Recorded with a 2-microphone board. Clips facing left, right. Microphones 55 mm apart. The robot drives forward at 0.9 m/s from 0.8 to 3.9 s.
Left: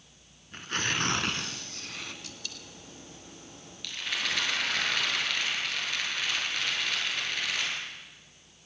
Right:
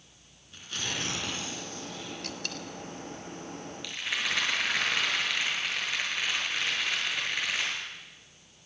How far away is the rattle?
About 6.5 m.